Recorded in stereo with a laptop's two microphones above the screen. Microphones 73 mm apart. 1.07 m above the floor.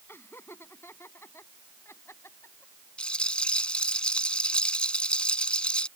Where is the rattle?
15° left (ahead or behind).